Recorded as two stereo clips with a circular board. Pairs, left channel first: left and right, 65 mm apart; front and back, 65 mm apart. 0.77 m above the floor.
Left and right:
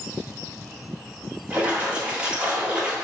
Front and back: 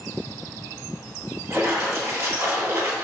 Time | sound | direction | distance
1.5 | a splash | 155° right | 1.7 m